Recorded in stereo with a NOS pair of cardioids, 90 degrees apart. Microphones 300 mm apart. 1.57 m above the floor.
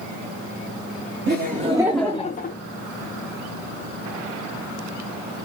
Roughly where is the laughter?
Ahead right.